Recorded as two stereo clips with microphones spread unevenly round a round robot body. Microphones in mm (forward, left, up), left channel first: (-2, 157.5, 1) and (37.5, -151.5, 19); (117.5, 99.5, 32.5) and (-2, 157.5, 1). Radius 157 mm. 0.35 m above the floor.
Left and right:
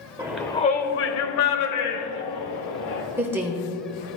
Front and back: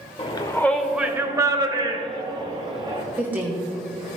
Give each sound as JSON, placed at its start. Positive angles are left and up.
{"t": 0.2, "sound": "a shout", "azimuth_deg": -15, "distance_m": 0.9}
{"t": 3.2, "sound": "a woman speaking", "azimuth_deg": -165, "distance_m": 1.1}